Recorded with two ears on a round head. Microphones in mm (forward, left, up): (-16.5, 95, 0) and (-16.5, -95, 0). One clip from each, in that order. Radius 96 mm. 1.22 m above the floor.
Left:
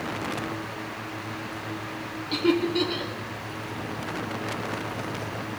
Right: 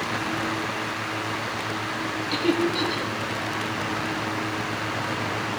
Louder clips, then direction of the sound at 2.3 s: Left 1 dB; 10° right (ahead or behind).